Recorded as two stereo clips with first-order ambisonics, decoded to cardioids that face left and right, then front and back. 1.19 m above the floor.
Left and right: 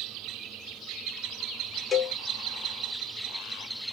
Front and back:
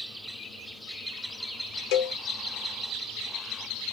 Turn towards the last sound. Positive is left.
turn(degrees=15)